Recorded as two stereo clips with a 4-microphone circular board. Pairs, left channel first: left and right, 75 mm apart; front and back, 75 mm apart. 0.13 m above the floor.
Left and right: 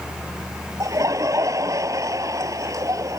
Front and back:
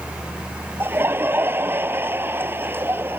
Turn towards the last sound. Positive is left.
turn(degrees=-125)